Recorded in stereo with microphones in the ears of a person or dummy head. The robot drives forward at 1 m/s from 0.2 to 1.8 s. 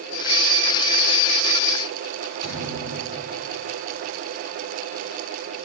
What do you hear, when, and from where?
2.4 s a thud: 25° right (ahead or behind), 2.5 m